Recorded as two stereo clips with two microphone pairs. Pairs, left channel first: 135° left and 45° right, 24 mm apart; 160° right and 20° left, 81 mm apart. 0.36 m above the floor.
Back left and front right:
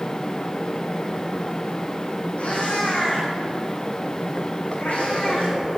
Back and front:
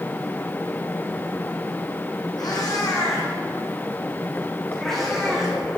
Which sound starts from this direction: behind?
A cat meowing, at 2.4 s.